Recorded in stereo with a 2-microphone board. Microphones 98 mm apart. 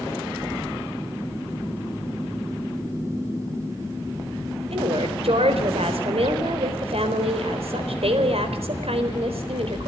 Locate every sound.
4.7 s a woman speaking: 75° right (ahead or behind), 4 m